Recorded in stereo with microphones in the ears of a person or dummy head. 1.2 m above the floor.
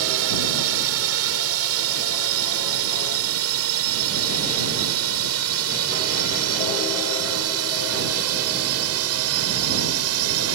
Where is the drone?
70° right (ahead or behind); by 10.6 s 75° right (ahead or behind).